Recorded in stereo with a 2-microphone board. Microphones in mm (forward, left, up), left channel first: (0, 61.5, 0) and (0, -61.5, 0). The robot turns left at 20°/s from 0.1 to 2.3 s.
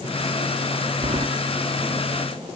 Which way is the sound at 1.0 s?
50° right (ahead or behind).